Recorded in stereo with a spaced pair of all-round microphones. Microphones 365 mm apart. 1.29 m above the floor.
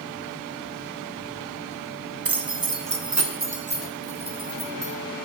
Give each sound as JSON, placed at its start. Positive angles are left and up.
{"t": 2.2, "sound": "keys jangling", "side_deg": -80, "distance_m": 0.6}